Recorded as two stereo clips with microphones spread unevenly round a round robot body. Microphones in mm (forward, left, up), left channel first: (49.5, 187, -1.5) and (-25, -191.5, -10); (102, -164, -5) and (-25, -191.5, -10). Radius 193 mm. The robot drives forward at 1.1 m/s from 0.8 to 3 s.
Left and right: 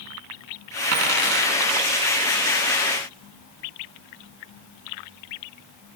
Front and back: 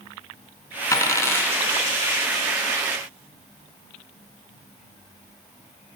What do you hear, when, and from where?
0.9 s a dropped coin: 50° right, 3.5 m; by 1.5 s 60° right, 3.5 m